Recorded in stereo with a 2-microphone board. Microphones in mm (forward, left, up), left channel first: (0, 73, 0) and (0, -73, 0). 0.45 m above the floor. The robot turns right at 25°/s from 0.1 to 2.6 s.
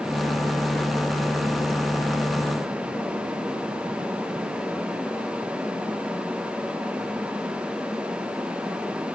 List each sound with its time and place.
Only background noise.